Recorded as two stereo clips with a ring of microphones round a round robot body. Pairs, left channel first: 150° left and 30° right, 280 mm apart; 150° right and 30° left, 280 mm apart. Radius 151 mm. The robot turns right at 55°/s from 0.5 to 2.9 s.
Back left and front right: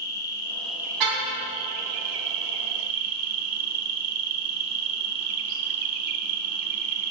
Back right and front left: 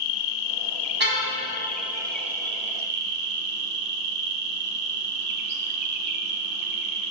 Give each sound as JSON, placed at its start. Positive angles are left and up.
{"t": 0.0, "sound": "an insect", "azimuth_deg": -130, "distance_m": 2.5}
{"t": 1.0, "sound": "a car horn", "azimuth_deg": -25, "distance_m": 4.0}